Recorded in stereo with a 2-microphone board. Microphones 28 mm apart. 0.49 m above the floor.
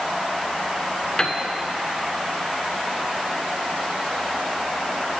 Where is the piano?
30° left (ahead or behind), 0.8 m.